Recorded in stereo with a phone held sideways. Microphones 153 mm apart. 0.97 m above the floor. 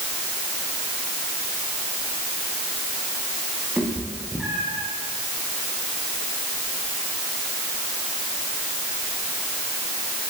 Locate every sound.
3.8 s a cat meowing: 10° right (ahead or behind), 9 m; by 4.9 s 5° right (ahead or behind), 9 m